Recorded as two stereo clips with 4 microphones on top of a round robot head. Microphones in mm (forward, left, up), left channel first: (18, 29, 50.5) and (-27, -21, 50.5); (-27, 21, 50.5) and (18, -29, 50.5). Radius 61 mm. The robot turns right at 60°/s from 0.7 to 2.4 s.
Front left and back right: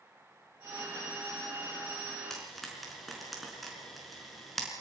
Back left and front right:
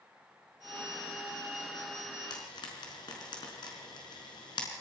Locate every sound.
2.3 s frying: 130° left, 4.5 m; by 4.7 s 135° left, 4.5 m